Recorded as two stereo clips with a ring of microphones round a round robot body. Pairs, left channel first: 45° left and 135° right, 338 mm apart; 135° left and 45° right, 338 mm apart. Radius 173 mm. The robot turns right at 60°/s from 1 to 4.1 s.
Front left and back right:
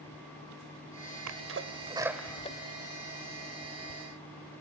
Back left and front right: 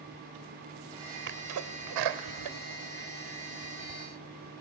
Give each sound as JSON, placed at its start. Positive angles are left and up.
{"t": 1.3, "sound": "a sneeze", "azimuth_deg": -100, "distance_m": 2.0}